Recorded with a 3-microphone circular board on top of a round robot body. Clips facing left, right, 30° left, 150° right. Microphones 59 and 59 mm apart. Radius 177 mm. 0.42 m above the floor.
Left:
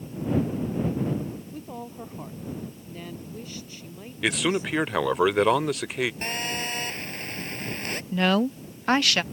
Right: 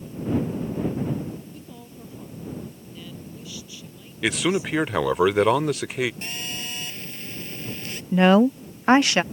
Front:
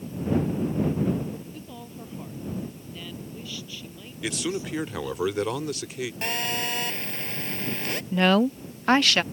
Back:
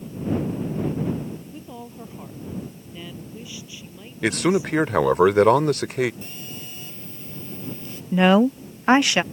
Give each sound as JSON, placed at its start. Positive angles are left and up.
{"t": 1.5, "sound": "a woman speaking", "azimuth_deg": 135}
{"t": 4.2, "sound": "a man speaking", "azimuth_deg": 180}
{"t": 6.2, "sound": "a phone buzzing", "azimuth_deg": 50}
{"t": 8.1, "sound": "a woman speaking", "azimuth_deg": -110}